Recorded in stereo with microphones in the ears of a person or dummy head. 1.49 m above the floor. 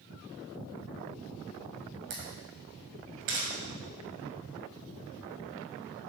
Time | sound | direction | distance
2.1 | a camera shutter | 55° right (ahead or behind) | 2 m